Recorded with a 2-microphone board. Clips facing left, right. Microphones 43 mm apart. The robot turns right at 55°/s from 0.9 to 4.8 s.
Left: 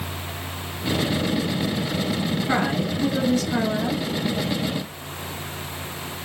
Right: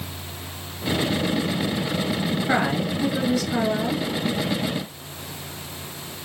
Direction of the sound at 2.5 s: 50° right.